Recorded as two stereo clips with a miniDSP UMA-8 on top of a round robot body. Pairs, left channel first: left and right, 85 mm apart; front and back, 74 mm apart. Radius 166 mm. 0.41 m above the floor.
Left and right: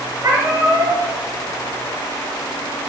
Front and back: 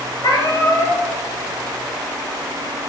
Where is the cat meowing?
30° right, 3.5 m.